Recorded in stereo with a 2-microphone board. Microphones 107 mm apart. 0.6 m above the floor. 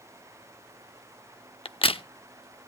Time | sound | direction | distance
1.6 | a crack | 60° left (ahead or behind) | 0.6 m